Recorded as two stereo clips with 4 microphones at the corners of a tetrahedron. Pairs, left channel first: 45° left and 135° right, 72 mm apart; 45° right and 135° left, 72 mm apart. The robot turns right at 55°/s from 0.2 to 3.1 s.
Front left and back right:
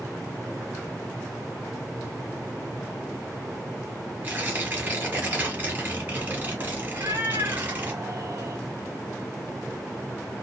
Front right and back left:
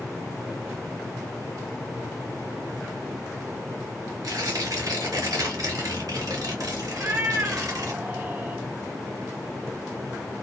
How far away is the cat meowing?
About 0.5 m.